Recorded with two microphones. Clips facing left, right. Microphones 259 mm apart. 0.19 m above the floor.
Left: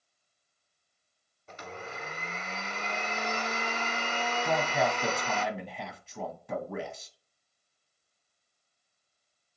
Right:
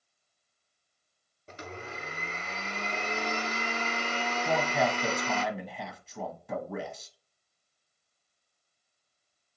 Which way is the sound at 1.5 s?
40° right (ahead or behind).